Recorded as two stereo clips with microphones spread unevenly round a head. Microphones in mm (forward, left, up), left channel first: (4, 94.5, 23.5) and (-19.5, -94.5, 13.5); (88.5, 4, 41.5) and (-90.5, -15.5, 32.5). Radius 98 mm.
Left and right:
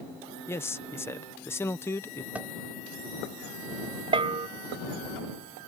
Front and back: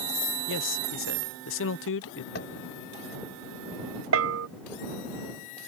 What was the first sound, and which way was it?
A man speaking, 5° left.